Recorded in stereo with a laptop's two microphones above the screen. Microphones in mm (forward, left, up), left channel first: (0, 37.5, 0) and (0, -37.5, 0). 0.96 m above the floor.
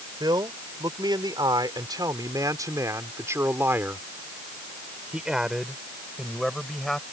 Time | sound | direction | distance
0.2 | a man speaking | 80° right | ?